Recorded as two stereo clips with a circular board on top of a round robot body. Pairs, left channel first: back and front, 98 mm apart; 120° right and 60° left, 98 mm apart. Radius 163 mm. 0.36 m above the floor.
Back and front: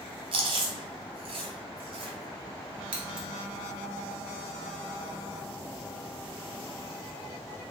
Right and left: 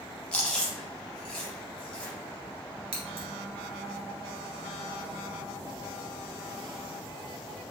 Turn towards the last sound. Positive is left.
turn(degrees=35)